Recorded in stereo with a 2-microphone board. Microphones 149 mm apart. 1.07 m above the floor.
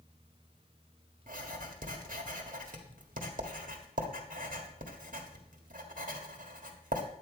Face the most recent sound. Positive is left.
turn(degrees=-65)  # may be behind; listen again after turning